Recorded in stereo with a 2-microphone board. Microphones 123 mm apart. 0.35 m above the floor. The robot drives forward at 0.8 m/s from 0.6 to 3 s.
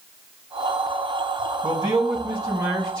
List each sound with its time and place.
1.6 s a man speaking: 30° right (ahead or behind), 2 m; by 3.0 s 20° right (ahead or behind), 3 m